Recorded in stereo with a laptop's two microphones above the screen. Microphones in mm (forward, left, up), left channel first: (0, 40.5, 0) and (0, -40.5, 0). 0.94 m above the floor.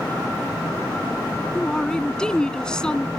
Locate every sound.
1.6 s a man speaking: 10° left (ahead or behind)